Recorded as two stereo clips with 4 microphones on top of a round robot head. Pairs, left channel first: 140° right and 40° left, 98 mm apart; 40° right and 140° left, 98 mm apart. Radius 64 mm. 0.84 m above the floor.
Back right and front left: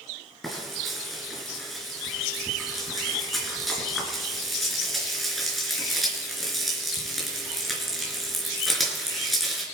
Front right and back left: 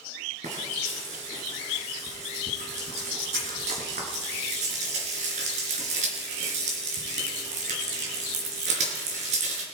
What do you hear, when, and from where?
0.4 s frying: 130° left, 4 m